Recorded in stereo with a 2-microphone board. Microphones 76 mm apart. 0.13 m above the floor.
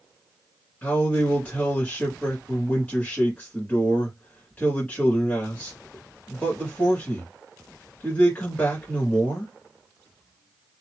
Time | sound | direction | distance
0.8 | a man speaking | 20° left (ahead or behind) | 1.6 m